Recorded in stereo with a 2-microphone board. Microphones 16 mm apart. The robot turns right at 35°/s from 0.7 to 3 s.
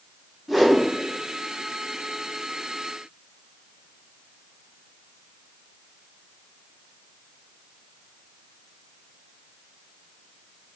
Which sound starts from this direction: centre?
A whoosh, at 0.5 s.